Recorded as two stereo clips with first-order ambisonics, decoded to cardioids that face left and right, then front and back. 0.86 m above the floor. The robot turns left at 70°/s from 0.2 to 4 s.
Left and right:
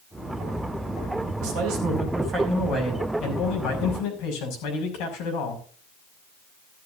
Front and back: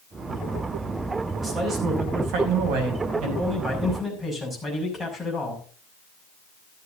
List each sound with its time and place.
1.4 s a man speaking: 90° right, 6 m; by 5.6 s 90° left, 6 m